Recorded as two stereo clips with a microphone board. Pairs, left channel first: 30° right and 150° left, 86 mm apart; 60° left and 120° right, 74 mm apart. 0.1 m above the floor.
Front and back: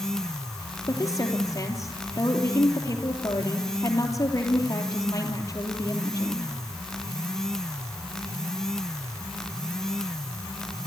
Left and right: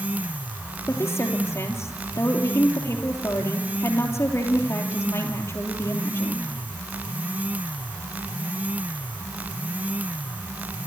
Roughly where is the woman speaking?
Ahead.